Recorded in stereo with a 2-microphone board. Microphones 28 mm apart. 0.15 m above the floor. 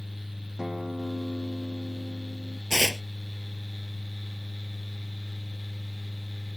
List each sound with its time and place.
0.6 s a guitar: 15° right (ahead or behind)
2.7 s tearing paper: 15° left (ahead or behind)